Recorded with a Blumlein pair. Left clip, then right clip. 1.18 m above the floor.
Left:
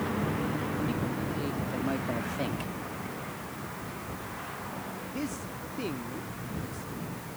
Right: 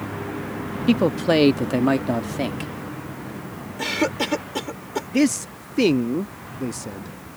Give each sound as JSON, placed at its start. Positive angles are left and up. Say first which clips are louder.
{"t": 0.9, "sound": "a man speaking", "louder": "right 14 dB", "azimuth_deg": -50}
{"t": 3.8, "sound": "a cough", "louder": "right 16 dB", "azimuth_deg": -45}
{"t": 5.1, "sound": "a man speaking", "louder": "right 18 dB", "azimuth_deg": -40}